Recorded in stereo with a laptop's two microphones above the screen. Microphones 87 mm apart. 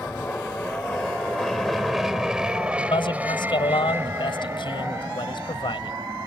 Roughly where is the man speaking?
Left.